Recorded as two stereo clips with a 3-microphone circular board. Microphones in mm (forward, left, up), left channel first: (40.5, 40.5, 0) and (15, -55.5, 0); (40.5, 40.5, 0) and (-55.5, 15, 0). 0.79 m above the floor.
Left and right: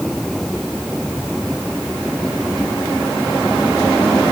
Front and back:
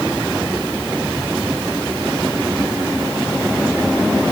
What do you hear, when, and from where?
Only background noise.